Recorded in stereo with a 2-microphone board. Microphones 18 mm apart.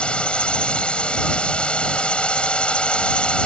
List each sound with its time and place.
0.0 s a drone: 90° left